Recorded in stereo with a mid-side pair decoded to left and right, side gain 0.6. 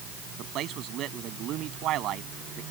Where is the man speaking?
60° right.